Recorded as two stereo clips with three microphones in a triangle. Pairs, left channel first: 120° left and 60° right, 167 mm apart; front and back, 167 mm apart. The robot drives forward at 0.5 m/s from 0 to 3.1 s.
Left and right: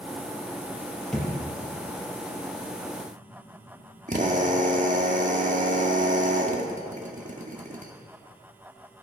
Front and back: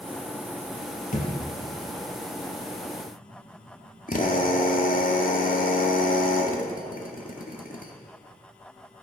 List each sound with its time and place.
1.1 s a thud: 40° left, 3 m
4.1 s a drill: 25° right, 1.5 m